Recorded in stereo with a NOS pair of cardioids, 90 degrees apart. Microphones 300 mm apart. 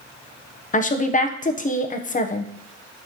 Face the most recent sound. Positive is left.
turn(degrees=25)